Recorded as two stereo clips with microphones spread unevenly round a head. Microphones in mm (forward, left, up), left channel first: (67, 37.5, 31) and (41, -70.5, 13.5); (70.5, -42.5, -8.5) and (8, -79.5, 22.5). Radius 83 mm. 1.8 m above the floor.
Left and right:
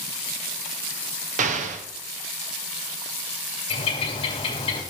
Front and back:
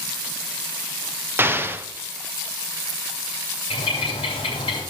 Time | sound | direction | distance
1.4 | an explosion | 95° right | 0.8 m
3.7 | a bird | 85° left | 2.5 m